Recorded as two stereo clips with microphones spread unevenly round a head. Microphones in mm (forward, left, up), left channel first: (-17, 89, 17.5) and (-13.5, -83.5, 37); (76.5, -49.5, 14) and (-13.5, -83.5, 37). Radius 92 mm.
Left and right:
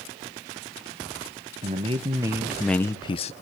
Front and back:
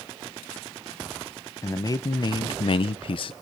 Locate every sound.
1.6 s a man speaking: 35° right, 1.5 m; by 3.3 s 40° left, 1.1 m